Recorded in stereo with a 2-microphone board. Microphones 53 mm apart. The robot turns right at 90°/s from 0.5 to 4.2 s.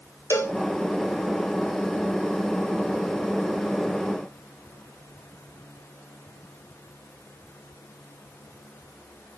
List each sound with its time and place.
0.3 s a cowbell: 60° left (ahead or behind), 1.4 m